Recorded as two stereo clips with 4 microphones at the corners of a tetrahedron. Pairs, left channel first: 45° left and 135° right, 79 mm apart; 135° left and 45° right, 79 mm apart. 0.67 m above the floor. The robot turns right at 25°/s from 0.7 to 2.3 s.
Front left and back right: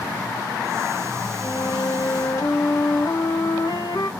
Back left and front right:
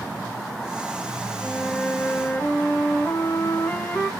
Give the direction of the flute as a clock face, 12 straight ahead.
10 o'clock.